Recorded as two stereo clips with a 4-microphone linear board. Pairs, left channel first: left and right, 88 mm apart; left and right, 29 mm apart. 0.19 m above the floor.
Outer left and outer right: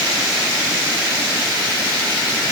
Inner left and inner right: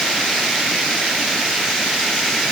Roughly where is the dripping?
No dripping in this recording.